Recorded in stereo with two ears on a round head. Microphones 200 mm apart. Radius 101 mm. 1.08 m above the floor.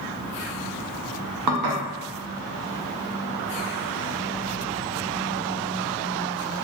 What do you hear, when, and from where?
1.5 s dishes clattering: 85° right, 0.6 m